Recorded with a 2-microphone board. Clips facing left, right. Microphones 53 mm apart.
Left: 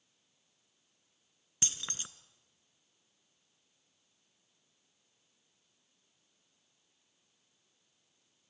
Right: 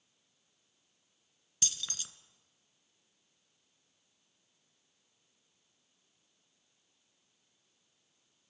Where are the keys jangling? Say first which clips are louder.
Even; 30° left (ahead or behind), 0.9 m.